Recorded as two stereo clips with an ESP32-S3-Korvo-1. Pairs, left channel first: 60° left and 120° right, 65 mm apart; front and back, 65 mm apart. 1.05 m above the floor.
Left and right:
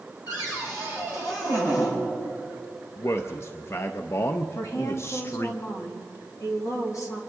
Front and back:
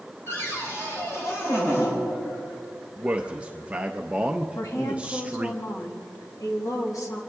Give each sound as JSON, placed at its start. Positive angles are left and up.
{"t": 0.3, "sound": "a cupboard door", "azimuth_deg": 45, "distance_m": 4.5}
{"t": 3.0, "sound": "a man speaking", "azimuth_deg": 110, "distance_m": 0.5}
{"t": 4.5, "sound": "a woman speaking", "azimuth_deg": 25, "distance_m": 1.9}